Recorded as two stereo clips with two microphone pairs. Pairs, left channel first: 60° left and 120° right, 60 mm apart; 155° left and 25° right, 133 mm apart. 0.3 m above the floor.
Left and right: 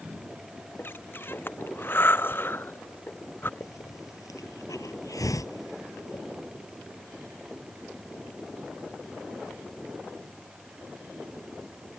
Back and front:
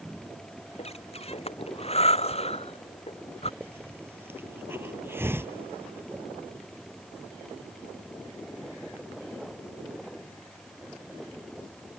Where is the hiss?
45° left.